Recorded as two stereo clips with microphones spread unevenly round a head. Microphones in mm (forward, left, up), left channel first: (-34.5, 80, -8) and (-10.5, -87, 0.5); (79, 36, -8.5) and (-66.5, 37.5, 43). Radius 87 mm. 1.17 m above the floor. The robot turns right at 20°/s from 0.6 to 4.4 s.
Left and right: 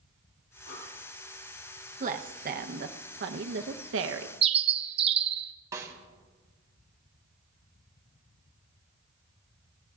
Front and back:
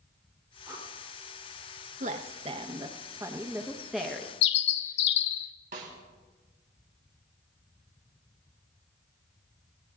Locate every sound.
0.7 s breathing: 100° left, 9.5 m
2.0 s a woman speaking: 130° right, 0.9 m; by 4.3 s 85° right, 0.9 m
4.4 s a bird: 30° right, 0.6 m
5.7 s a snare drum: 150° right, 1.8 m